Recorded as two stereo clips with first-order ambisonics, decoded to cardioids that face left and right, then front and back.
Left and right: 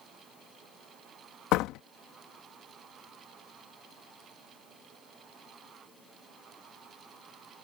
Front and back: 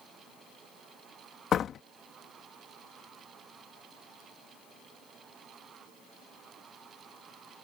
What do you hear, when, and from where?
1.5 s a door slam: 60° left